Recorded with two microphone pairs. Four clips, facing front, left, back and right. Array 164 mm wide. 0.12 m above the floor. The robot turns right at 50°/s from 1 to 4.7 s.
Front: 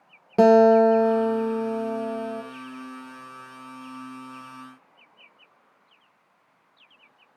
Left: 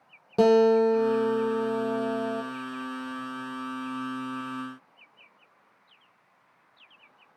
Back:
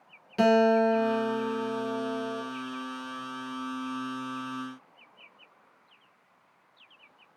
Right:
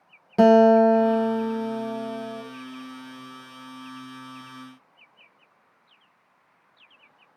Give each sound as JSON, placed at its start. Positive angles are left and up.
{"t": 0.4, "sound": "a guitar", "azimuth_deg": 0, "distance_m": 0.9}